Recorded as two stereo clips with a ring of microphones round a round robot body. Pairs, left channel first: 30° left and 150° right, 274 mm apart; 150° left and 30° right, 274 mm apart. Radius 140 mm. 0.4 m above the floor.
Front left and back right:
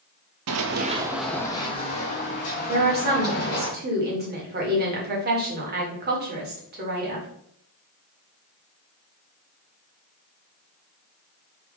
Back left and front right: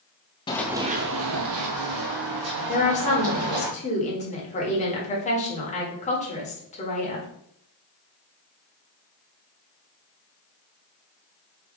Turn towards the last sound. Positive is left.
turn(degrees=-165)